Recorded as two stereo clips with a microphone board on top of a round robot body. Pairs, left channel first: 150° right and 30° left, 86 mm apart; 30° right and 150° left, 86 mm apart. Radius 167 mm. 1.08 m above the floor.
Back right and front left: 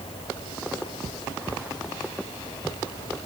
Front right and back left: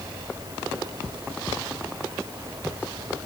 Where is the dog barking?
I don't hear a dog barking.